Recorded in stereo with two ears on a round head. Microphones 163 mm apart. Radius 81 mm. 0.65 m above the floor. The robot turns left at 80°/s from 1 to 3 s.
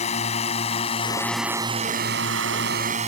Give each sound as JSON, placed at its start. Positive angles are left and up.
{"t": 0.0, "sound": "a drone", "side_deg": 35}